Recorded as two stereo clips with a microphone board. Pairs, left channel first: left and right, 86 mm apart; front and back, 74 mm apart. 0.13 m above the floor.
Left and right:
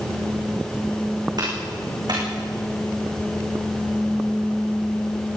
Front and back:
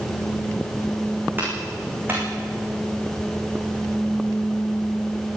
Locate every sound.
1.4 s a clap: 120° right, 9 m